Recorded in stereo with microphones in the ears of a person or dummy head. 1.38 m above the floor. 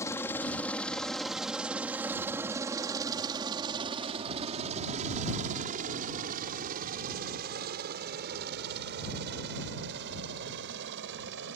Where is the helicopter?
15° left (ahead or behind); by 11.6 s 65° right (ahead or behind).